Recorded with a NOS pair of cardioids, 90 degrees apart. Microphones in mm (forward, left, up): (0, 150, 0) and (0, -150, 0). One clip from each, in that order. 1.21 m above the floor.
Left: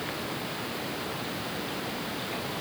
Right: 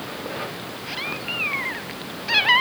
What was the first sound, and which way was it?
Only background noise.